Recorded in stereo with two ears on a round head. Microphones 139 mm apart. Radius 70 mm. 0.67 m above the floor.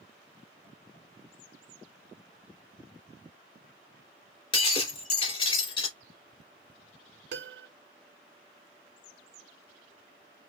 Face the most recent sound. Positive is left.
turn(degrees=-75)  # may be behind; listen again after turning